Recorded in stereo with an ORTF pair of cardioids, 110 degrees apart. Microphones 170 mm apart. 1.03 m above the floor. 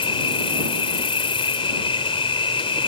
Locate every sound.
0.0 s an insect: 35° left